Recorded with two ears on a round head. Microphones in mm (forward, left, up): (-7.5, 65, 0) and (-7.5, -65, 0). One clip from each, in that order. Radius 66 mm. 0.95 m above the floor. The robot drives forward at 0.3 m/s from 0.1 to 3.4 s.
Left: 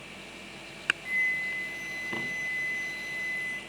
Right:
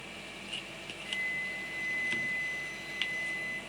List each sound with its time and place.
1.1 s a flute: 35° left (ahead or behind), 1.1 m; by 3.6 s 20° left (ahead or behind), 1.7 m